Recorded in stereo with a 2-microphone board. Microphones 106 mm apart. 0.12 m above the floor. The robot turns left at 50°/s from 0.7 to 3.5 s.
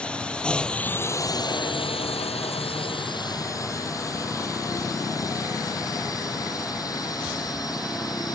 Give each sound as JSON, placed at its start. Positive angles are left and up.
{"t": 0.0, "sound": "a drone", "side_deg": 10}